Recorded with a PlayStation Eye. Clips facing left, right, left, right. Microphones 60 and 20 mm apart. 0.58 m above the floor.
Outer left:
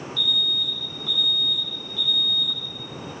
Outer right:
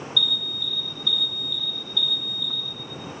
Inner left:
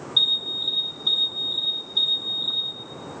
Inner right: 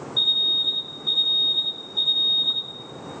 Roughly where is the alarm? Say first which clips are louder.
Outer left 1 dB, inner right 1 dB; left.